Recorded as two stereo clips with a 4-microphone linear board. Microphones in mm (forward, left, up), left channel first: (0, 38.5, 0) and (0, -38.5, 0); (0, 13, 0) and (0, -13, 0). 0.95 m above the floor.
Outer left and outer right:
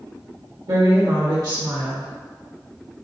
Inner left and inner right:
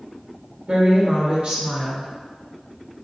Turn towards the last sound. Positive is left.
turn(degrees=-55)  # may be behind; listen again after turning